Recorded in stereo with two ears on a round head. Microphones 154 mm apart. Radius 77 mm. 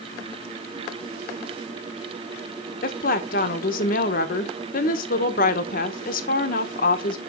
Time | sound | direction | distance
2.8 | a woman speaking | 50° left (ahead or behind) | 1.1 m